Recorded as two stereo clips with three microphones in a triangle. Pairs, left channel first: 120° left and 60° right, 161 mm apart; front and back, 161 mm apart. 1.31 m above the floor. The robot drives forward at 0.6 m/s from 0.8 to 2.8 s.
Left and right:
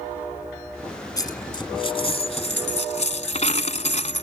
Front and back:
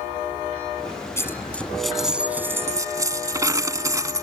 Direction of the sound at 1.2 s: 65° left.